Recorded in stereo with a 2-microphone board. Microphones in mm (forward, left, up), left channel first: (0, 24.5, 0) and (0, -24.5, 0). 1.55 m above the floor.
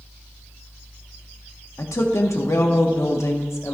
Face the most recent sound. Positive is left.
turn(degrees=85)